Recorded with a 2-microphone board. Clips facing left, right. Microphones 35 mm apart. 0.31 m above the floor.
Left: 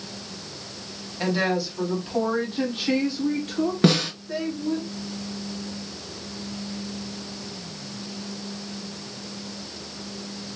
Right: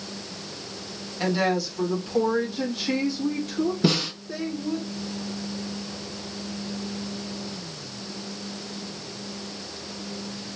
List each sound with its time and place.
1.2 s a woman speaking: 5° left (ahead or behind), 1.5 m; by 4.8 s 50° left (ahead or behind), 3 m
3.8 s a snare drum: 60° left (ahead or behind), 2.5 m